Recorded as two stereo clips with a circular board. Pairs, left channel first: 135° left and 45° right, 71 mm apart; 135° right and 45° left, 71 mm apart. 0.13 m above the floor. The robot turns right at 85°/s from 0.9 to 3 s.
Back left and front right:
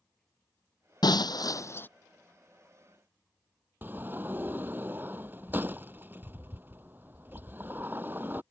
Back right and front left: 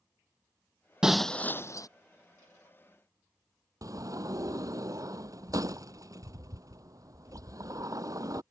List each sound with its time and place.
1.0 s breaking glass: 125° left; by 1.9 s 165° right
3.8 s a sliding door: 15° left